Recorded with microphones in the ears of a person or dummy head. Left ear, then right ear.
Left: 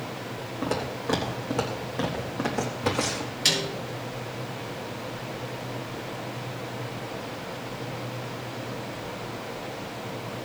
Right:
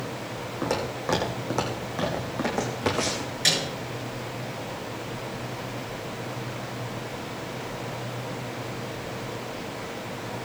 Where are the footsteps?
45° right (ahead or behind), 4 m; by 3.3 s 15° right (ahead or behind), 3.5 m.